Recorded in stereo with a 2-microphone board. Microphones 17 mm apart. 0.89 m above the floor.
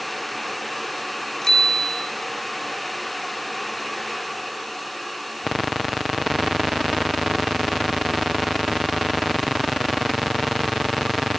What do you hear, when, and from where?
1.4 s a bicycle bell: 25° left (ahead or behind), 4 m